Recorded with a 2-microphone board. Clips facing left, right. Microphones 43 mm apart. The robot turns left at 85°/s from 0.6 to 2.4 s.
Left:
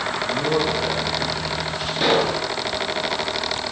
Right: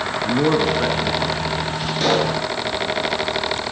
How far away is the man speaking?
About 4.5 m.